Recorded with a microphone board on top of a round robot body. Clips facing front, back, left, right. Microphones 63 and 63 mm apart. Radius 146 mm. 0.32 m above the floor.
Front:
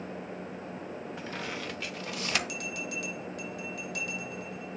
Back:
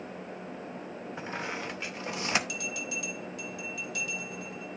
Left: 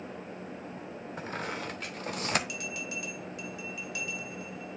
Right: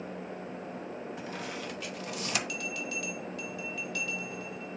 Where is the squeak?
120° left, 0.9 m.